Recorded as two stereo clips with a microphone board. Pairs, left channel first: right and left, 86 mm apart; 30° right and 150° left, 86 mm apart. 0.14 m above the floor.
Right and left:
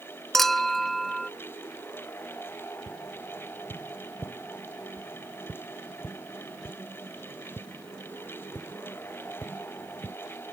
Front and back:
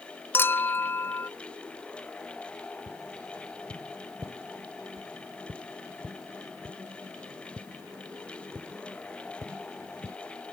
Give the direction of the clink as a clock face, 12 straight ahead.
12 o'clock.